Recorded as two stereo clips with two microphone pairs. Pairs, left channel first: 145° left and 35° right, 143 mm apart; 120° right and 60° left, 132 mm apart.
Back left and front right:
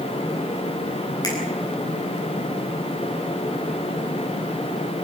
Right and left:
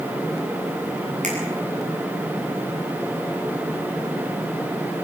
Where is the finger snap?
80° left, 9 m.